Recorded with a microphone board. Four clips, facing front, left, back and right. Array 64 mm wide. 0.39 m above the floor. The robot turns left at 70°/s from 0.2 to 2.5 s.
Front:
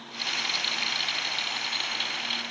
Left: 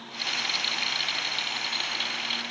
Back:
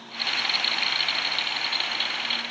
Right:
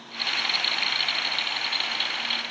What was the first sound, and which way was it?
Only background noise.